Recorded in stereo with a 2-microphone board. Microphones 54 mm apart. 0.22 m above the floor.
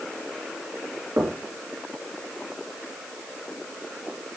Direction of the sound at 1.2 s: 55° right (ahead or behind).